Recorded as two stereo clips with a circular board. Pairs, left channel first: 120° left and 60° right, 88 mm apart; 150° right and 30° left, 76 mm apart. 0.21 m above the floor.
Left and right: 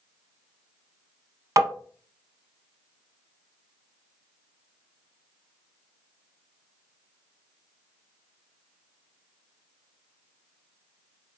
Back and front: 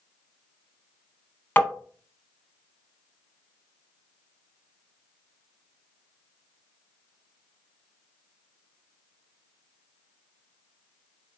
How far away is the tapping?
About 0.8 m.